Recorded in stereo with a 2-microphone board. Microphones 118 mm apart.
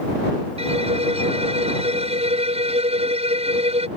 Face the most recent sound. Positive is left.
turn(degrees=-60)  # may be behind; listen again after turning